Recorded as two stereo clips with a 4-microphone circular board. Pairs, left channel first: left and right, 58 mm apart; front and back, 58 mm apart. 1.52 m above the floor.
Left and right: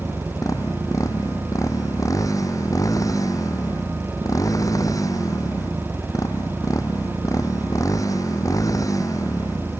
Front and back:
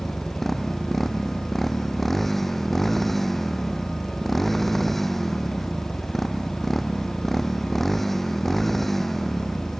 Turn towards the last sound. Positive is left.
turn(degrees=85)